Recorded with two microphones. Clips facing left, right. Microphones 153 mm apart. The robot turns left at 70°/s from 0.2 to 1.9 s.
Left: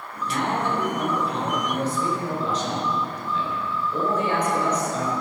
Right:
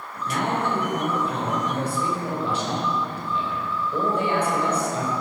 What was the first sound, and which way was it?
A man speaking, 55° right.